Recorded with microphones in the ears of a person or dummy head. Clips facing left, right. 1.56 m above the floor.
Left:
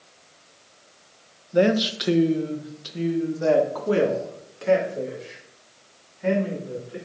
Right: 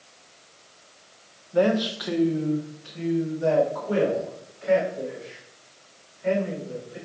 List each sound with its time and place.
1.5 s a man speaking: 15° left (ahead or behind), 0.9 m; by 7.0 s 80° left, 3 m